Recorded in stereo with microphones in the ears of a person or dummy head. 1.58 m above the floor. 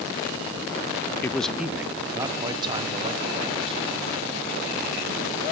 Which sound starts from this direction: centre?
A man speaking, at 1.2 s.